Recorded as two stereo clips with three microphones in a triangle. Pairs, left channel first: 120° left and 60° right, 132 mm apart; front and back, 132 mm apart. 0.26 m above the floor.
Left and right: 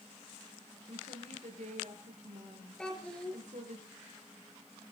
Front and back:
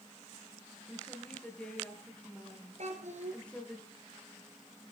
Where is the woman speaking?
80° right, 5.5 m.